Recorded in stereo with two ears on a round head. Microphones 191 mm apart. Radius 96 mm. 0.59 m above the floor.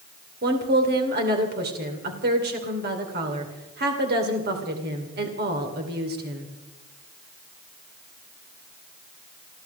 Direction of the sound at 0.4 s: 50° right (ahead or behind).